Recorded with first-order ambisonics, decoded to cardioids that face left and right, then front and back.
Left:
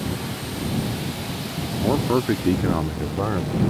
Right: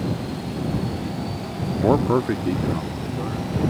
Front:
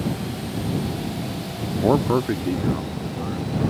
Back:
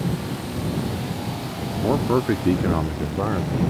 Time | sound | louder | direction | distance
1.8 | a man speaking | right 3 dB, front 2 dB | 50° right | ?